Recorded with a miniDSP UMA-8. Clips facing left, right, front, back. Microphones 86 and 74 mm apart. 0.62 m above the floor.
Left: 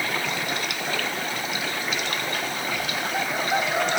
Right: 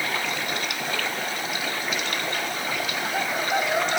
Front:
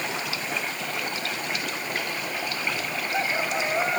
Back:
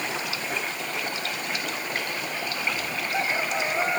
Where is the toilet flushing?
I don't hear a toilet flushing.